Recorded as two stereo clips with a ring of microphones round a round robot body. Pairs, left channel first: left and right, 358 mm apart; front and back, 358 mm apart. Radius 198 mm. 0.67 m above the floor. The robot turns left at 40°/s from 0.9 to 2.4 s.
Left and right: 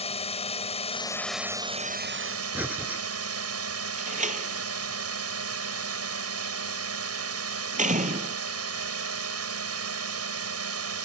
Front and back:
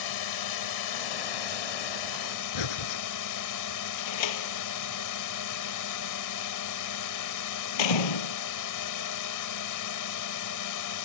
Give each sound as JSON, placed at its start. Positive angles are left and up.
{"t": 0.0, "sound": "a drone", "azimuth_deg": 15}
{"t": 2.5, "sound": "breathing", "azimuth_deg": -5}
{"t": 4.0, "sound": "a door slam", "azimuth_deg": -20}